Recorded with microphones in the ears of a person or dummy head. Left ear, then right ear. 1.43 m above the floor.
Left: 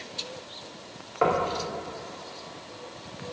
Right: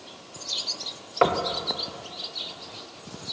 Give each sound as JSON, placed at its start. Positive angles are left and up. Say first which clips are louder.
{"t": 1.2, "sound": "knocking", "louder": "right 2 dB", "side_deg": -80, "distance_m": 0.5}